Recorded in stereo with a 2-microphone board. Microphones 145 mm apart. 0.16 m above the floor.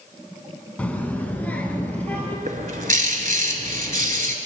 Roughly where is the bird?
Right.